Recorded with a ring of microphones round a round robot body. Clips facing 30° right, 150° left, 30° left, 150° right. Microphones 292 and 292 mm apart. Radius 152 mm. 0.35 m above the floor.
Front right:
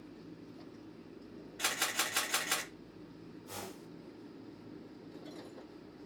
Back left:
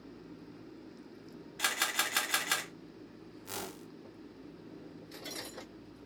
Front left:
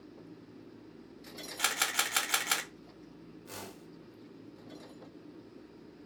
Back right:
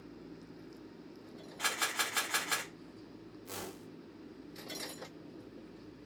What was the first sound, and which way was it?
A camera shutter, 70° left.